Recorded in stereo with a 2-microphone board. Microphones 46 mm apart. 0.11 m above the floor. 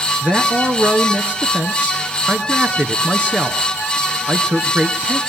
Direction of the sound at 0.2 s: 30° right (ahead or behind).